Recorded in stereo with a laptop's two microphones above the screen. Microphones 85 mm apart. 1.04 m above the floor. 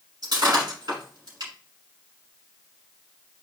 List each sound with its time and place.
0.2 s breaking glass: 55° right (ahead or behind), 7 m